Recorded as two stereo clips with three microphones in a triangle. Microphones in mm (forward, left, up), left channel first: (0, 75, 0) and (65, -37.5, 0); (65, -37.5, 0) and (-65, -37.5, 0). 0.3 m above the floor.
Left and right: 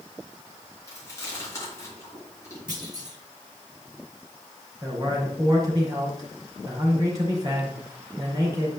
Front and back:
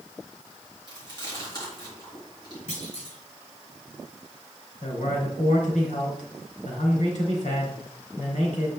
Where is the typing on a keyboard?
I don't hear typing on a keyboard.